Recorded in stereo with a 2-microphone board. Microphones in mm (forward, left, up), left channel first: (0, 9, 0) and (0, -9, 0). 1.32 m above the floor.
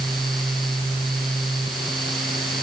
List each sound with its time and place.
Only background noise.